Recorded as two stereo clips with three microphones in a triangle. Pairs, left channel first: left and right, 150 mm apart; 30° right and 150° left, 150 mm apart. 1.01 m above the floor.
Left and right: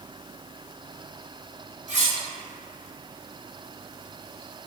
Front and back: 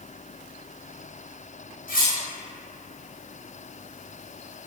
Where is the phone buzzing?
I don't hear a phone buzzing.